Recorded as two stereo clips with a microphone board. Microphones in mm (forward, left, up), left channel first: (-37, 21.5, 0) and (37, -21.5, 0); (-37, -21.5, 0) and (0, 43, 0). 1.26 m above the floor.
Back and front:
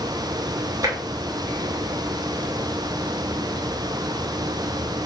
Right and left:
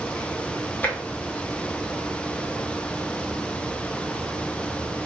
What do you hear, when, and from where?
0.8 s tapping: 60° right, 0.9 m